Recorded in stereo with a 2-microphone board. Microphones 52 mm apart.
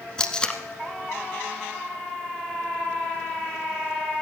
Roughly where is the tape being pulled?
Centre.